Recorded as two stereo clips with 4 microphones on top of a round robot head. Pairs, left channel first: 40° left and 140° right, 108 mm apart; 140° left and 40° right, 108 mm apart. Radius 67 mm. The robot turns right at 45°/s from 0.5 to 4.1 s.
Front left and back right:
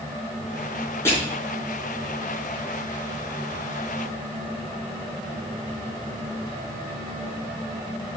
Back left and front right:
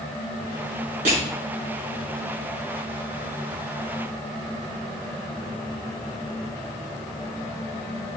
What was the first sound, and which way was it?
Crushing, 30° right.